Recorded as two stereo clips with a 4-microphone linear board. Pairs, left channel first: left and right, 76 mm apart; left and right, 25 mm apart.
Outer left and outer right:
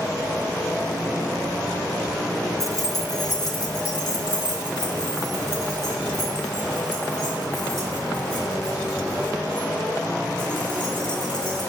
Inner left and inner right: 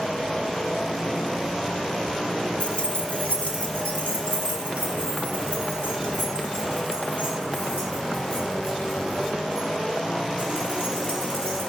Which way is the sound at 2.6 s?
45° left (ahead or behind).